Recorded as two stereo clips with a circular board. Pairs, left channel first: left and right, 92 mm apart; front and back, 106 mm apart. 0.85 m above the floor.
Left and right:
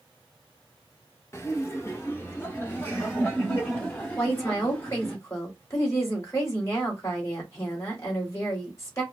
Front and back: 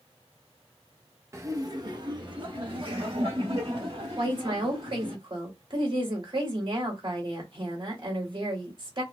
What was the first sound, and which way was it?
Laughter, 130° left.